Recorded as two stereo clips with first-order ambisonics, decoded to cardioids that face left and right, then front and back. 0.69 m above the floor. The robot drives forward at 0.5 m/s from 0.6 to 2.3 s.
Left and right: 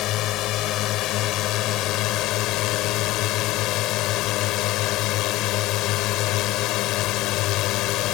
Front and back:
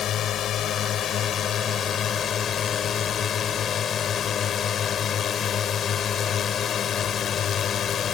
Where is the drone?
55° left; by 8.2 s 60° left.